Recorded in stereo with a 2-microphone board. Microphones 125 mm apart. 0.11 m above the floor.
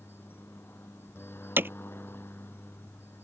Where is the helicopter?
15° left (ahead or behind).